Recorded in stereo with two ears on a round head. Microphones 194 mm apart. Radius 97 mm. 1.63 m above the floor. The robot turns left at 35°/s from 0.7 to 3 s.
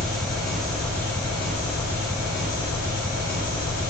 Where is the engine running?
Straight behind, 1.1 m; by 3.9 s 100° left, 1.1 m.